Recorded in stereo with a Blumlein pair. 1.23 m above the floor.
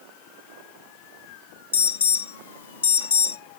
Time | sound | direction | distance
1.7 | an alarm | 65° left | 1.3 m